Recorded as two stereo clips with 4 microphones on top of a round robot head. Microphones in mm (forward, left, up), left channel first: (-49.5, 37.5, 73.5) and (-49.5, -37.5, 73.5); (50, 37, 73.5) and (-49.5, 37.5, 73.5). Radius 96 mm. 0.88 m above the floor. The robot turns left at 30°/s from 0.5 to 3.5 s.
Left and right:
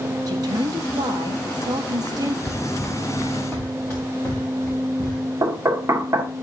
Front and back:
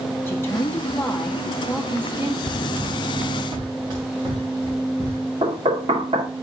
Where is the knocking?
140° right, 1.7 m.